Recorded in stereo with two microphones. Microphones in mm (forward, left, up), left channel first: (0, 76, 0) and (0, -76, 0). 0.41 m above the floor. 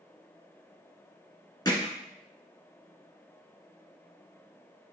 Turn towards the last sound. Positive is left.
turn(degrees=20)  # may be behind; listen again after turning